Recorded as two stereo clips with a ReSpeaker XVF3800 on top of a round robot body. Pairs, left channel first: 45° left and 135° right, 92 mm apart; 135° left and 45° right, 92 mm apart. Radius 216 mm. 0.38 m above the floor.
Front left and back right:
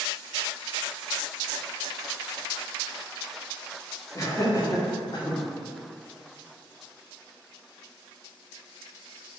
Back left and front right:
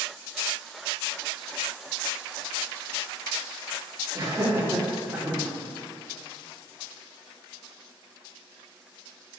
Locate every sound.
4.2 s laughter: 5° left, 1.9 m; by 5.4 s 35° left, 1.9 m